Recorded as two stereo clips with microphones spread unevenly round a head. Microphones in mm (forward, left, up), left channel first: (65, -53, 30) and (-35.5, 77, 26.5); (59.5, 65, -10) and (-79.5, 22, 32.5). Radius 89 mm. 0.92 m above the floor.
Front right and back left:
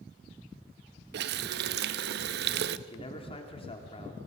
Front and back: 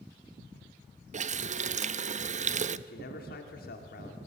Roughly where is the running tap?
Behind left.